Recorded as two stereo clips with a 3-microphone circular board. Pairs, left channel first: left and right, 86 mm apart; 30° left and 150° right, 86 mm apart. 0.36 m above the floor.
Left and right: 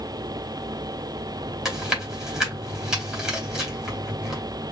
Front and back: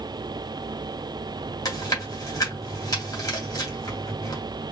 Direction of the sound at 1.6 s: 10° right.